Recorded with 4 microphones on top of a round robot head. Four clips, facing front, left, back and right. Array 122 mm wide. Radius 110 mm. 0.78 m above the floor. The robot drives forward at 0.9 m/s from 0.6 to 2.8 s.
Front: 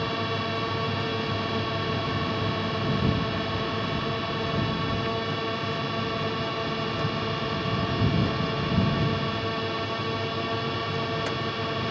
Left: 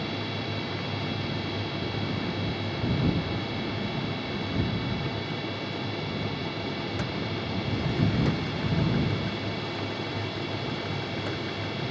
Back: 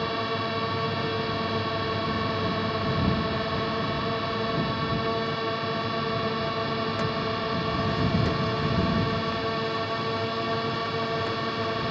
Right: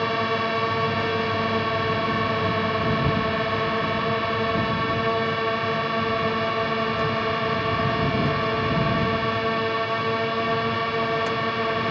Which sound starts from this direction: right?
A drone, at 0.0 s.